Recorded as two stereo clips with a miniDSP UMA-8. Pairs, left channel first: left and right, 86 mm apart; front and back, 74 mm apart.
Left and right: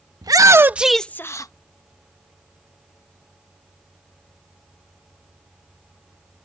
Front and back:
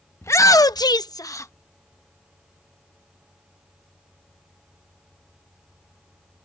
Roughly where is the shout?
Ahead right.